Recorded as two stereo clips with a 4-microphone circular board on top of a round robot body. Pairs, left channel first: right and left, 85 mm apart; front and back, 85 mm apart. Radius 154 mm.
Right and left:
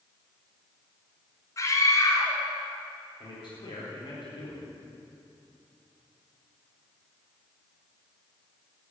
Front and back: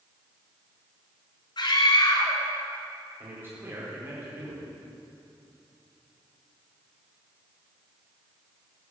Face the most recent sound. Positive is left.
turn(degrees=-115)